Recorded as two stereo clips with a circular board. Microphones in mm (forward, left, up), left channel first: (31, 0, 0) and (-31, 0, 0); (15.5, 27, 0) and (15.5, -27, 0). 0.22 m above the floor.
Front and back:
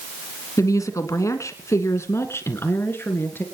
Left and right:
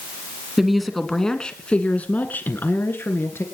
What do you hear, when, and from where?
0.6 s a woman speaking: 5° right, 1.9 m; by 3.4 s 50° left, 3 m